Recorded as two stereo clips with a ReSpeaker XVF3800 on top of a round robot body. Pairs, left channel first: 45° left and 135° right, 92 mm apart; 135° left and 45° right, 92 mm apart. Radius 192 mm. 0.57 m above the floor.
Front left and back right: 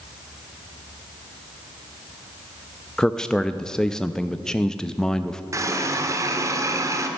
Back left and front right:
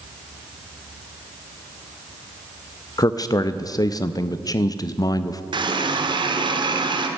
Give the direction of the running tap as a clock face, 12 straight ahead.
3 o'clock.